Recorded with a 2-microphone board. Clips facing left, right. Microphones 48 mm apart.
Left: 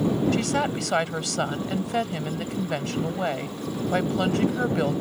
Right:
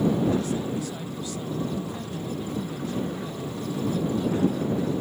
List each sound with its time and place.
0.3 s a woman speaking: 75° left (ahead or behind)